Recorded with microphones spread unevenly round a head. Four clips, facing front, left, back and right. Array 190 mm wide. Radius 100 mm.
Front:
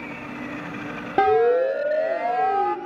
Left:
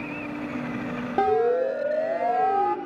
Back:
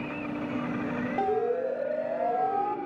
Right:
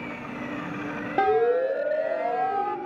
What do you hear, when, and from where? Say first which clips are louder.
1.2 s a siren: even, front 11 dB; straight ahead, 3.5 m; by 2.8 s 25° left, 4.5 m